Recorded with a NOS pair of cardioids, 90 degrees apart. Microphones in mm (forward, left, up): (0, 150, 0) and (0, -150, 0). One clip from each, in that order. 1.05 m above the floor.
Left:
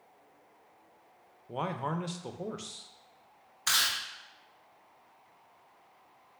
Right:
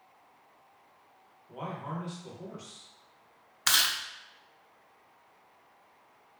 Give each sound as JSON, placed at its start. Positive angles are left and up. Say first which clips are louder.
{"t": 1.5, "sound": "a man speaking", "louder": "left 5 dB", "azimuth_deg": 55, "distance_m": 0.5}
{"t": 3.7, "sound": "chewing", "louder": "right 2 dB", "azimuth_deg": -40, "distance_m": 0.7}